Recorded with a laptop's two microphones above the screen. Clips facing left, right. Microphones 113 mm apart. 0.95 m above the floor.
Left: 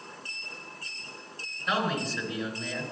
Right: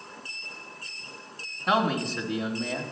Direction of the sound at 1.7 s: 50° right (ahead or behind).